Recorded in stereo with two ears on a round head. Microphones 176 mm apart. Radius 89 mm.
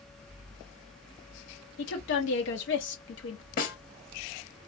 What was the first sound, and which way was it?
A woman speaking, 65° left (ahead or behind).